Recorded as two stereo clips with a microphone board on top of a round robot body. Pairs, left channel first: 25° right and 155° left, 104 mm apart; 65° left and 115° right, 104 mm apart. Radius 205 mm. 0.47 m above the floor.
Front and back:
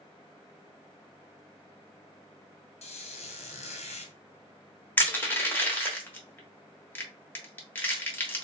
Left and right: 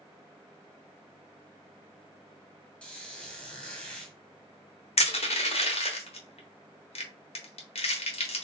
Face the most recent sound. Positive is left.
turn(degrees=50)